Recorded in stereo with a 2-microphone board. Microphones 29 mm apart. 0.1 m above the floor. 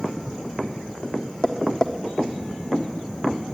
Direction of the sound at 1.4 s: 25° left (ahead or behind).